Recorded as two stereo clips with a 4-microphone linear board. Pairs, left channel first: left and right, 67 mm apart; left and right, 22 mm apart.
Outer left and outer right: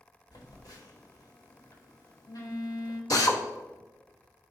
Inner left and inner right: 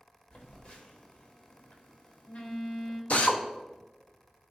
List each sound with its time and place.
0.3 s a phone buzzing: 65° left (ahead or behind), 1.2 m
3.1 s a drill: 60° left (ahead or behind), 0.8 m